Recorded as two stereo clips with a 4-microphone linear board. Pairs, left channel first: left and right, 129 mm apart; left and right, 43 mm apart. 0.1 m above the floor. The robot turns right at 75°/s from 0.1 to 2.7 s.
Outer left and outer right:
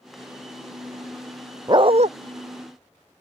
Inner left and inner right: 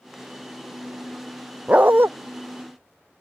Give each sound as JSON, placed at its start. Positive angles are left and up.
{"t": 1.7, "sound": "a dog barking", "azimuth_deg": -145}